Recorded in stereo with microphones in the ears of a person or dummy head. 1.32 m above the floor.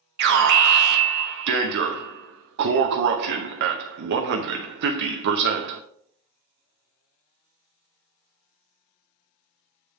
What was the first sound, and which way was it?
An alarm, 50° right (ahead or behind).